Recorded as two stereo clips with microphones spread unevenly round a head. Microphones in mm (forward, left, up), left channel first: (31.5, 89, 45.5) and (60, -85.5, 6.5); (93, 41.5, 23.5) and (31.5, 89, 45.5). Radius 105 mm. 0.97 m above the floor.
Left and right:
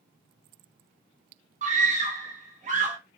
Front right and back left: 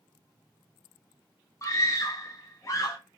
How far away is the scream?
About 1.0 m.